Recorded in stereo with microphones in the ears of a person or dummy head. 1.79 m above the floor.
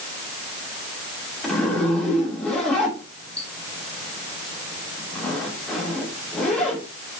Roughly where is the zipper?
Centre.